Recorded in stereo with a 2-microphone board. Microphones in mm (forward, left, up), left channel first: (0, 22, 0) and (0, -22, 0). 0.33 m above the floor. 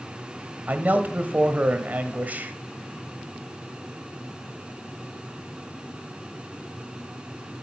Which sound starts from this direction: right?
A man speaking, at 0.7 s.